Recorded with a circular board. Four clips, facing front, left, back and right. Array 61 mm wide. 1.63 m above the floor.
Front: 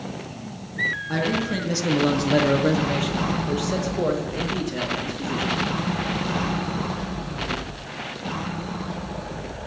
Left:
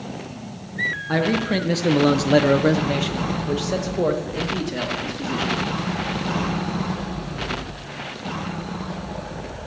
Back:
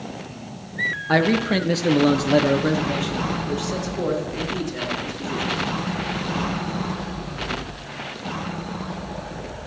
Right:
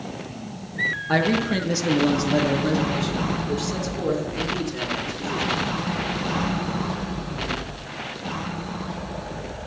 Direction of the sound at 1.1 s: 170° right.